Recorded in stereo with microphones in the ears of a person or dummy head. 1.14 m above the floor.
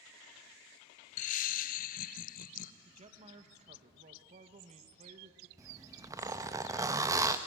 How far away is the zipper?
About 0.7 m.